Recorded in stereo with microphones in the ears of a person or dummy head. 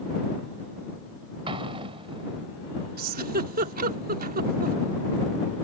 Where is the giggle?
50° right (ahead or behind).